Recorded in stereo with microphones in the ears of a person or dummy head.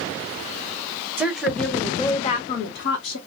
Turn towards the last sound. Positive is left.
turn(degrees=75)  # may be behind; listen again after turning